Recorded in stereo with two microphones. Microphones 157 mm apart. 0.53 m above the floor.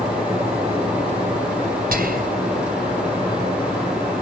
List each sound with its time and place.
1.9 s whispering: 70° right (ahead or behind), 3 m